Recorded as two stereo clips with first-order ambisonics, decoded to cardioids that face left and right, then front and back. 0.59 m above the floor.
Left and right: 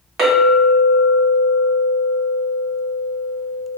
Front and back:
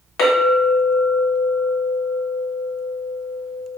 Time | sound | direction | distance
0.2 | a clink | 30° right | 1.5 m